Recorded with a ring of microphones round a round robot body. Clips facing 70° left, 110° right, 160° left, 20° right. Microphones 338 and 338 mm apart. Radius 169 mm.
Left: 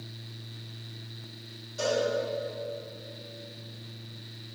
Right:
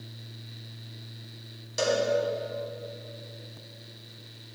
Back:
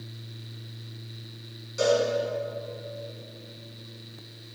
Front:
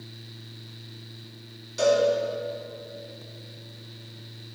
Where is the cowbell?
100° right, 0.9 m.